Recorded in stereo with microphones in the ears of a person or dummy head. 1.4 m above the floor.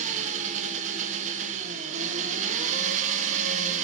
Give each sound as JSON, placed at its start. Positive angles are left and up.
{"t": 0.0, "sound": "an engine running", "side_deg": -45, "distance_m": 0.7}